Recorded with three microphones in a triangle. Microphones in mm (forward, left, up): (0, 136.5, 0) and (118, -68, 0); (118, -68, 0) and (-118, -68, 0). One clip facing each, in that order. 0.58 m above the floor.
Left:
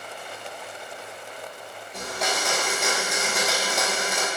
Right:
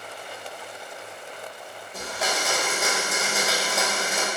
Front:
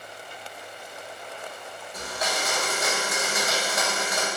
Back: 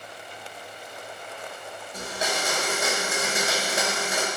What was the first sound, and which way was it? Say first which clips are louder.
A blender: even, back 1 dB; 145° right.